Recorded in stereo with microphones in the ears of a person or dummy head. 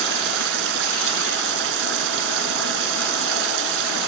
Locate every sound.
0.0 s running water: 65° right (ahead or behind)